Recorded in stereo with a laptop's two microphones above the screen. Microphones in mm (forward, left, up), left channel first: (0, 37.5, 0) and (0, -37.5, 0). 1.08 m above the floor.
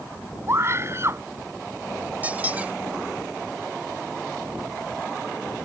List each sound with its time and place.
0.5 s a scream: 35° right (ahead or behind)
2.2 s a squeak: 20° right (ahead or behind)